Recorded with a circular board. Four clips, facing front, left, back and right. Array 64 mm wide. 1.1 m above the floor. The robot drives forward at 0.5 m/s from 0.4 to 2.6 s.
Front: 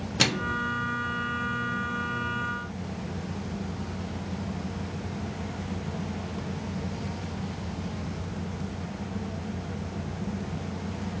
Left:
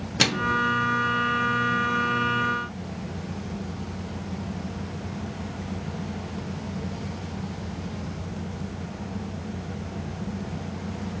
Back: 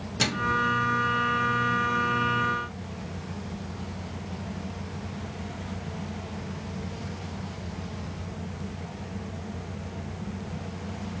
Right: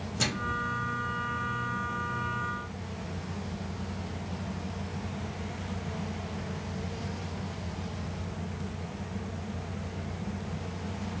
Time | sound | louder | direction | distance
0.2 | a microwave | left 9 dB, back 2 dB | 65° left | 0.6 m